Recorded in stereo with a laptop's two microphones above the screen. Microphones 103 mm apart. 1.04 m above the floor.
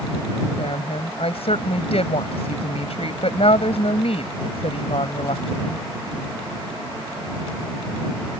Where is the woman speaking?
75° left (ahead or behind).